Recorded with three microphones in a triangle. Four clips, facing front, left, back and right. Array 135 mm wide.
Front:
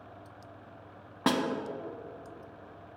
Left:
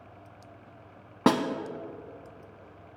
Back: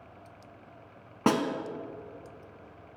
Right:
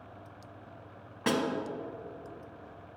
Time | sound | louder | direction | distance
1.3 | a snare drum | left 6 dB, back 3 dB | 100° left | 0.5 m